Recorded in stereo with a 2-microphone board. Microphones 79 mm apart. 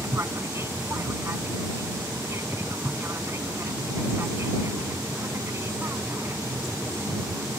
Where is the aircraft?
35° right (ahead or behind).